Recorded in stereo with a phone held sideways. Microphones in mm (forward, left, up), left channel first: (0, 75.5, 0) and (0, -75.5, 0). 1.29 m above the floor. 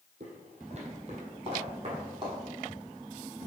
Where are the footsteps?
50° right (ahead or behind), 1.9 m; by 2.4 s 30° right (ahead or behind), 3 m.